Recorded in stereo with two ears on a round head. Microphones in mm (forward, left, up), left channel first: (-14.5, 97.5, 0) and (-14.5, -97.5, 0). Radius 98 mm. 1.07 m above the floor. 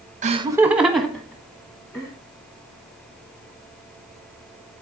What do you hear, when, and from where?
0.2 s laughter: 35° right (ahead or behind), 0.8 m; by 2.1 s 15° left (ahead or behind), 3 m